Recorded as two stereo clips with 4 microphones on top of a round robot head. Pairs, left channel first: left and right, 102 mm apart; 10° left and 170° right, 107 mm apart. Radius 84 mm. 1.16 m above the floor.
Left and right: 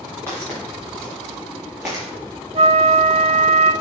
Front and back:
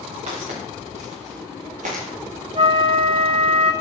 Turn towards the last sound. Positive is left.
turn(degrees=-125)